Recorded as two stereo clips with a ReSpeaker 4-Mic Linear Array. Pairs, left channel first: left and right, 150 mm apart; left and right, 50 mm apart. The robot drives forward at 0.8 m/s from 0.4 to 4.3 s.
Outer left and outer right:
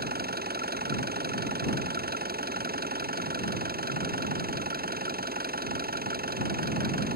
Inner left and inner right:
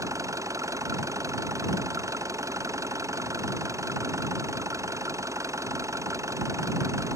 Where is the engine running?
80° right; by 7.2 s 75° right (ahead or behind).